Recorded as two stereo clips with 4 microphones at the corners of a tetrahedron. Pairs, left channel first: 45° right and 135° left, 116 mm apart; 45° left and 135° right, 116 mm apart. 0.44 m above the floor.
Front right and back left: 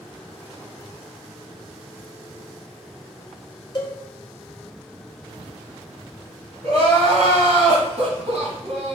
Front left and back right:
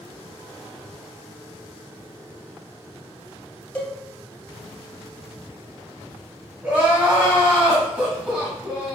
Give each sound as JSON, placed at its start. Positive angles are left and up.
{"t": 3.8, "sound": "a cowbell", "azimuth_deg": -25, "distance_m": 0.7}
{"t": 6.6, "sound": "crying", "azimuth_deg": 145, "distance_m": 1.3}